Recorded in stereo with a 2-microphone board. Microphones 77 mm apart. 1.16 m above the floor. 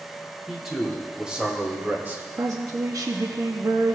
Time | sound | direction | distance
0.5 | a man speaking | centre (ahead or behind) | 3 m
2.4 | a woman speaking | 50° right (ahead or behind) | 0.8 m